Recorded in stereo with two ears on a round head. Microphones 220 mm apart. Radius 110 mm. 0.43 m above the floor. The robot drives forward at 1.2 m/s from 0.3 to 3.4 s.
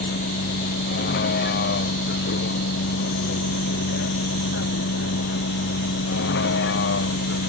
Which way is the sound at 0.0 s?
40° left (ahead or behind).